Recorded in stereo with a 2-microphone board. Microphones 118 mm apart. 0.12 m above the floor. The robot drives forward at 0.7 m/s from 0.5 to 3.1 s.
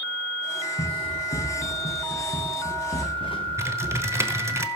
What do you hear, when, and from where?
0.8 s running footsteps: 70° left (ahead or behind), 2.5 m; by 4.6 s 40° left (ahead or behind), 3.5 m
3.6 s typing on a keyboard: 25° right (ahead or behind), 0.9 m